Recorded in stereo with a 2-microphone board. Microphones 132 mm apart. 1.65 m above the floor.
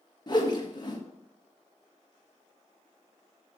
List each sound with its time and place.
0.3 s a whoosh: 35° left (ahead or behind), 1.7 m